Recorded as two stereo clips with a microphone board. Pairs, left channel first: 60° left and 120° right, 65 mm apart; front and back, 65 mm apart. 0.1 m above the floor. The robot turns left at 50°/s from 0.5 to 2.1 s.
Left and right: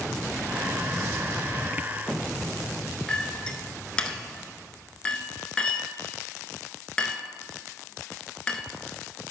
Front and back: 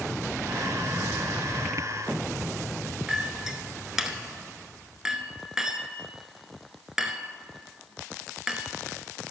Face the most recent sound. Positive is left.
turn(degrees=115)